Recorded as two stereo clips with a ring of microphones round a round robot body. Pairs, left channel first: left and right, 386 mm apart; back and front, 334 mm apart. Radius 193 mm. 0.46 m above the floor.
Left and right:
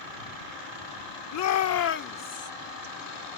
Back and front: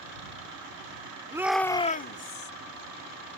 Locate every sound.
1.3 s a shout: 75° left; by 2.5 s 160° left